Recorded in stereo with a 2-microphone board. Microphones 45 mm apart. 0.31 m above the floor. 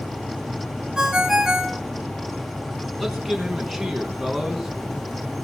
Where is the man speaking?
Centre (ahead or behind), 4 m.